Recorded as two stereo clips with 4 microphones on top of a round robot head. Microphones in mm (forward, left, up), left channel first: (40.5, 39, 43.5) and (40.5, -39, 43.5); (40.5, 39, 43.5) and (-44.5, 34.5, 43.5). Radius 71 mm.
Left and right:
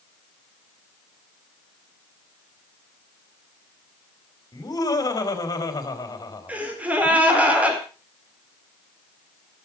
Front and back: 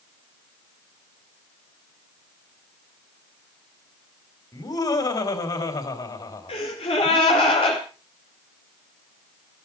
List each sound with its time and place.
4.5 s laughter: 45° left, 4 m
6.5 s a gasp: 20° right, 4.5 m